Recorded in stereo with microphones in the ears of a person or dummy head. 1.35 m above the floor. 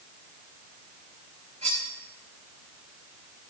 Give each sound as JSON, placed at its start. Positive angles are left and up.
{"t": 1.6, "sound": "cutlery clinking", "side_deg": -40, "distance_m": 4.5}